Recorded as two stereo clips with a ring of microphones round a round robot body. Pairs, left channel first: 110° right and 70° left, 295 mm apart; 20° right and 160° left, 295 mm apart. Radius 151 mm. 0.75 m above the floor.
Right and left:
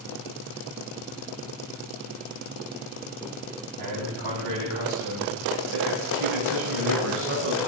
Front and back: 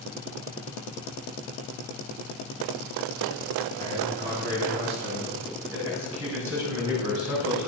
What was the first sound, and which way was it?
A man speaking, 95° left.